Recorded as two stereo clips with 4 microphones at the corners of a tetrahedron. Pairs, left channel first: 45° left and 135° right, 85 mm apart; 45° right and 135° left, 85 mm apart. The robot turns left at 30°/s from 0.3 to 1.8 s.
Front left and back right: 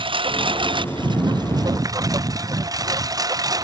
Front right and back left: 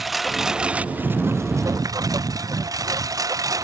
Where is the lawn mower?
135° right; by 3.6 s straight behind.